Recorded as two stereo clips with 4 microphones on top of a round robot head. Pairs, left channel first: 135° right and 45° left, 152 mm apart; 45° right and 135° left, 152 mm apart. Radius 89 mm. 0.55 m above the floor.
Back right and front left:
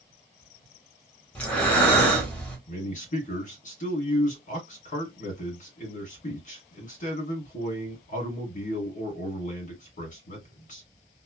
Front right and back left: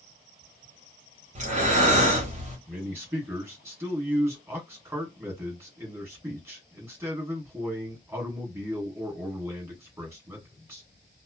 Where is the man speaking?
150° right, 1.6 m.